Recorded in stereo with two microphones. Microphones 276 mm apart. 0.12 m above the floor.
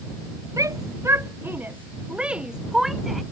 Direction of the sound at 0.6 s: 10° right (ahead or behind).